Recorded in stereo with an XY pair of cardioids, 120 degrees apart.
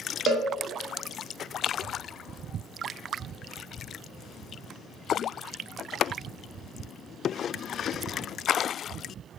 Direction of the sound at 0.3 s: 55° right.